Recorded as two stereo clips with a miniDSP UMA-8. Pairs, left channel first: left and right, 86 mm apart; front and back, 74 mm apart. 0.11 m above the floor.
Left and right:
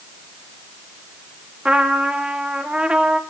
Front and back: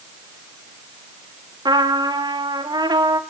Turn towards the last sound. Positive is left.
turn(degrees=-170)